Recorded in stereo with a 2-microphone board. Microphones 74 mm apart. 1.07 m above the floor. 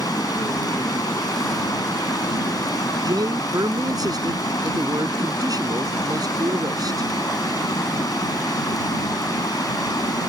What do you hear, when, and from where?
0.0 s running water: 60° left (ahead or behind)
3.0 s a man speaking: 60° right (ahead or behind)